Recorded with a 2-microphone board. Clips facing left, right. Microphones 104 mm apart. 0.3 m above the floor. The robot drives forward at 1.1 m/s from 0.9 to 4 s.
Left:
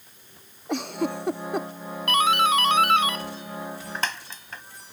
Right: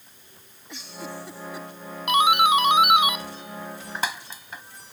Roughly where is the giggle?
Left.